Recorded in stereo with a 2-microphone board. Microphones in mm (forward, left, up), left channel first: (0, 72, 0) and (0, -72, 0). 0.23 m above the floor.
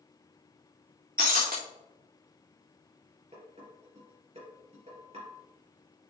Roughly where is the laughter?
No laughter in this recording.